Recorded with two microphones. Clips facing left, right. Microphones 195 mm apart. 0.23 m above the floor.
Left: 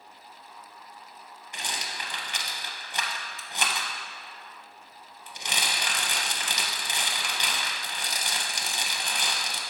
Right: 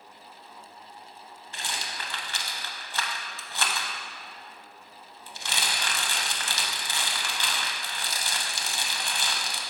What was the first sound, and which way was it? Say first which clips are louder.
A rattle: even; 15° left (ahead or behind).